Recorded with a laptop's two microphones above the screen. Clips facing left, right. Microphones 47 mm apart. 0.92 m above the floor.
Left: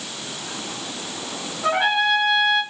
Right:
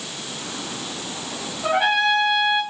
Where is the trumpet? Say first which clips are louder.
Even; 5° left (ahead or behind), 1.2 m.